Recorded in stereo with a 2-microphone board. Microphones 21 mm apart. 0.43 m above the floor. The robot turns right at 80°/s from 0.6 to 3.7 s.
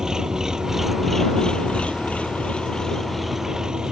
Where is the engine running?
35° right; by 3.9 s 150° right.